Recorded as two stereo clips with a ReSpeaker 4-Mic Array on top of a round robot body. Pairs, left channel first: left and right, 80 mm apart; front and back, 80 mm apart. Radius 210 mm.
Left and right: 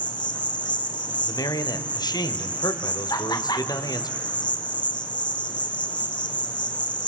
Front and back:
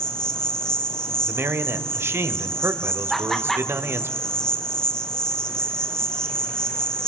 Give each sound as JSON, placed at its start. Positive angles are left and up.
{"t": 0.0, "sound": "an insect", "azimuth_deg": 80, "distance_m": 4.0}
{"t": 1.2, "sound": "a man speaking", "azimuth_deg": 120, "distance_m": 2.5}
{"t": 3.1, "sound": "laughter", "azimuth_deg": 85, "distance_m": 2.0}